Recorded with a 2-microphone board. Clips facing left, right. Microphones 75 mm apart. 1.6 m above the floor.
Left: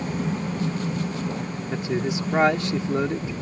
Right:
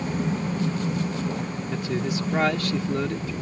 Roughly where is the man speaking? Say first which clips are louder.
Left 2 dB; left.